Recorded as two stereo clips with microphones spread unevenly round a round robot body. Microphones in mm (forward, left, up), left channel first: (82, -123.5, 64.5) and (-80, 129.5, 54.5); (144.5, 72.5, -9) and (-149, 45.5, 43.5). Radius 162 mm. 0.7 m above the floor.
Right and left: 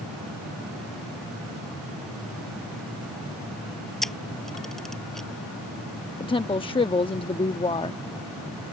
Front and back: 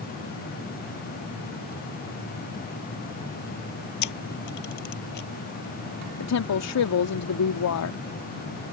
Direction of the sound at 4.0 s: 30° left.